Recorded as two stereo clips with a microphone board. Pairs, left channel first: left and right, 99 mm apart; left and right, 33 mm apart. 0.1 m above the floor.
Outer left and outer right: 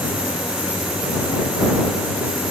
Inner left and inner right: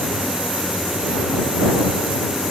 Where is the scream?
I don't hear a scream.